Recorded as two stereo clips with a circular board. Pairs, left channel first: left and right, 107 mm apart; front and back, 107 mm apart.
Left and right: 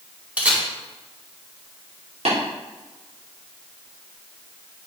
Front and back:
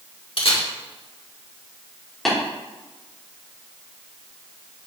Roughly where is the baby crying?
I don't hear a baby crying.